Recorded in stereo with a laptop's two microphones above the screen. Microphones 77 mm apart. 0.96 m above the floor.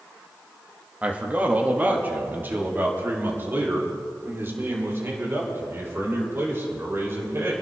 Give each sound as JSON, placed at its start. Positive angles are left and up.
{"t": 1.0, "sound": "a man speaking", "side_deg": -20, "distance_m": 1.8}